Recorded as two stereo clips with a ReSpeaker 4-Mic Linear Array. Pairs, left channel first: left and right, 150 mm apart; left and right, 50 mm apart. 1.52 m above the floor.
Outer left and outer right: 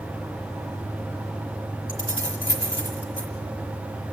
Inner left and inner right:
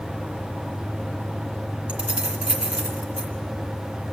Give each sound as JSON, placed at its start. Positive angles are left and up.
{"t": 1.9, "sound": "keys jangling", "side_deg": -30, "distance_m": 2.0}